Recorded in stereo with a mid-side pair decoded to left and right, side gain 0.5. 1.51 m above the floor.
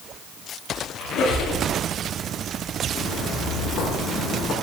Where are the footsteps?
65° left, 7.5 m.